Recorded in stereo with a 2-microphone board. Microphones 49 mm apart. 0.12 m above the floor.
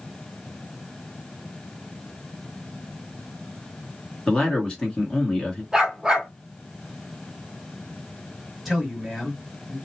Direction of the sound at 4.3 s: 20° left (ahead or behind).